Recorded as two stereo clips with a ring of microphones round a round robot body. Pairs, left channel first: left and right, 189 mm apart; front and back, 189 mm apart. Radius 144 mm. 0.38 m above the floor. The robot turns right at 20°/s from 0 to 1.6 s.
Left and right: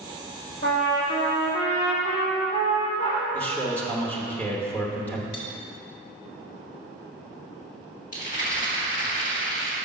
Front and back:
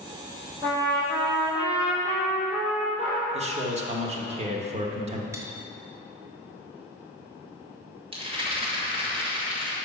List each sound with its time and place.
0.6 s a trumpet: 105° left, 2.5 m; by 3.2 s 125° left, 2.5 m
3.3 s a man speaking: 165° left, 0.9 m
5.3 s cutlery clinking: 105° left, 1.4 m
8.1 s a rattle: 125° left, 2 m